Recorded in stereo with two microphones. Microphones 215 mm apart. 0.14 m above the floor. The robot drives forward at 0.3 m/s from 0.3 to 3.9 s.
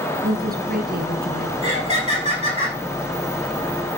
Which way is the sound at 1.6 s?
30° right (ahead or behind).